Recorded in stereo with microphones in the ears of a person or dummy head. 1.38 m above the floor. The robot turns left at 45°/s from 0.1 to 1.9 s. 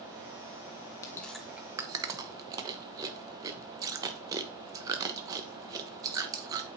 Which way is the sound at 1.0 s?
10° left (ahead or behind).